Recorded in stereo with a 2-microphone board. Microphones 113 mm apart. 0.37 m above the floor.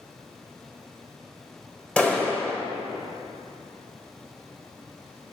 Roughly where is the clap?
Centre.